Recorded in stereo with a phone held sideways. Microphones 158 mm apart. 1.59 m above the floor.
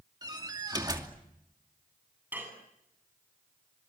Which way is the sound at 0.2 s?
25° right (ahead or behind).